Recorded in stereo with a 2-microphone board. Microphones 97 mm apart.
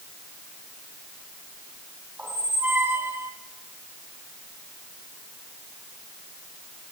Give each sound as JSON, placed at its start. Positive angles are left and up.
{"t": 2.2, "sound": "a squeak", "side_deg": -20, "distance_m": 1.5}